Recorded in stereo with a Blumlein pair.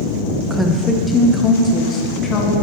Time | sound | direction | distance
0.5 | a woman speaking | 5° right | 1.1 m